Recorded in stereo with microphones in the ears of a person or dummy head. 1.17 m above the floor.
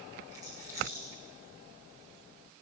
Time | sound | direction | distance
0.3 | a rattle | 15° right (ahead or behind) | 5 m